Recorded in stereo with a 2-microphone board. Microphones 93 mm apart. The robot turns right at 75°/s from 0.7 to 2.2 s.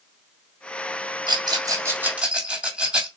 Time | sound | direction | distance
1.3 | a rattle | 55° right (ahead or behind) | 2 m